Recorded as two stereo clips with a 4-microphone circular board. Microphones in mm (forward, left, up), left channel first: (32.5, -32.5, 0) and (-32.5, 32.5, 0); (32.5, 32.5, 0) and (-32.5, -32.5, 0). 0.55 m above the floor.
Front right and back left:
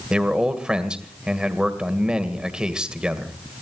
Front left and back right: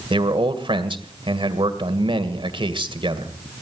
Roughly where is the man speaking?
Behind right.